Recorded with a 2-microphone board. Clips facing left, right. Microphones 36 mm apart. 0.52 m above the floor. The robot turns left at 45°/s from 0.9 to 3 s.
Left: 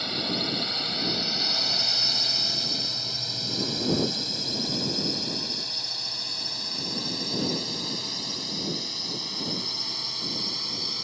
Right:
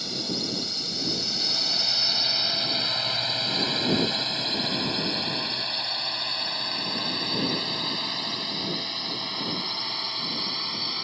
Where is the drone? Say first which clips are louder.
Left 2 dB; 30° left (ahead or behind); by 11.1 s 25° right (ahead or behind).